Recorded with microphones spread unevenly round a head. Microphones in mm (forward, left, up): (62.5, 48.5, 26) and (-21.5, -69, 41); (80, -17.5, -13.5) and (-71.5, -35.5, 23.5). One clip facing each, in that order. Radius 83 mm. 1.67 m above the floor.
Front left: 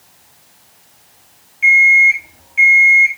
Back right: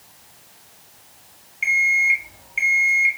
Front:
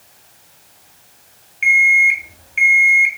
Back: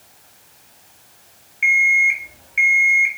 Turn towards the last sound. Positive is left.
turn(degrees=-45)